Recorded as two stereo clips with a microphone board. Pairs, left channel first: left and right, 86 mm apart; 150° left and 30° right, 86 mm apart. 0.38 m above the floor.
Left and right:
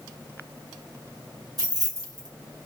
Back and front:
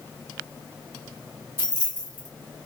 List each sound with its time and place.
1.6 s keys jangling: 75° right, 1.2 m